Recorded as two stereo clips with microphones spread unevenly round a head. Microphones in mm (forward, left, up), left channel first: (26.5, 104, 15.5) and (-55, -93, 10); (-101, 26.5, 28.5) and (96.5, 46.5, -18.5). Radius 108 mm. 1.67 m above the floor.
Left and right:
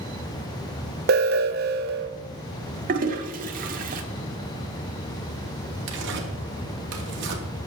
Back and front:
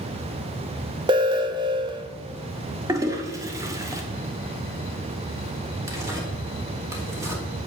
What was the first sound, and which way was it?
An alarm, 65° right.